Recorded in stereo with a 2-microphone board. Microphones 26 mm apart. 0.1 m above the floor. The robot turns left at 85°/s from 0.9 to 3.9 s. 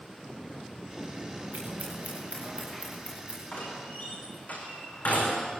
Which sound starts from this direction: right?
Scissors, at 1.5 s.